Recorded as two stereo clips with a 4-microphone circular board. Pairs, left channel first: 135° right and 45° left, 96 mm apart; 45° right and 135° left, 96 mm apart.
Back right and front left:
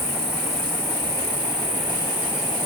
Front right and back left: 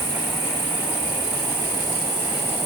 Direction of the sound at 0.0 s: 15° left.